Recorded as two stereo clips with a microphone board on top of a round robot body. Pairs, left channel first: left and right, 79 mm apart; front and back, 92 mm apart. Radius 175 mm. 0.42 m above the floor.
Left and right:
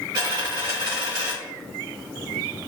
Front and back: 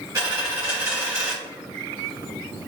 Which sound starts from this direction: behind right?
A dropped coin, at 0.1 s.